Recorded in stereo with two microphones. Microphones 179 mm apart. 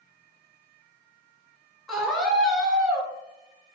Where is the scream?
Centre (ahead or behind), 1.2 m.